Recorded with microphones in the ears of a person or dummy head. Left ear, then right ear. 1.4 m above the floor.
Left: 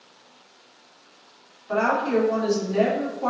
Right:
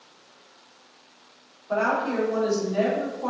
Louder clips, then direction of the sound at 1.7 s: Left 2 dB; 65° left (ahead or behind).